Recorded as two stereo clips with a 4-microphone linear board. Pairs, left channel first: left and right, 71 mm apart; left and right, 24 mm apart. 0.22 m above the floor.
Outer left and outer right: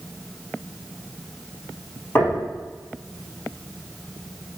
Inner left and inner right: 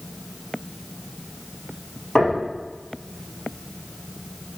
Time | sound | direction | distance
2.1 | knocking | 30° left (ahead or behind) | 4 m